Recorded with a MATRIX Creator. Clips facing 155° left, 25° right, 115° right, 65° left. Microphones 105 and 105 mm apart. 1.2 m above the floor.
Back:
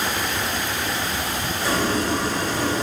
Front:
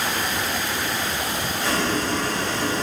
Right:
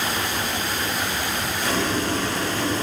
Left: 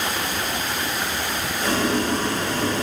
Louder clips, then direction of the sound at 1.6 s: Back 2 dB, left 3 dB; 90° left.